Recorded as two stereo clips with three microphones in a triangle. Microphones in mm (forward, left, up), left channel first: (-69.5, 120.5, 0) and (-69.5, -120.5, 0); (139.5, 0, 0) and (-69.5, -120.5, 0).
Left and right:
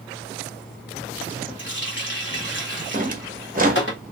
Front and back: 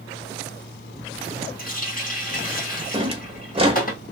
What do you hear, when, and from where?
1.6 s a running tap: 75° left, 1.0 m
2.9 s a drawer: 100° right, 0.7 m